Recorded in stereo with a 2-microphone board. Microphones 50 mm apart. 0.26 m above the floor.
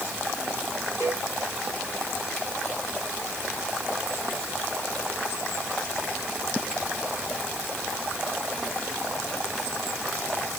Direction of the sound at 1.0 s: 70° left (ahead or behind).